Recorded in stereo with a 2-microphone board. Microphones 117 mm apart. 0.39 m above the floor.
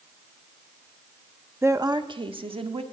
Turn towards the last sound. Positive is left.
turn(degrees=-50)  # may be behind; listen again after turning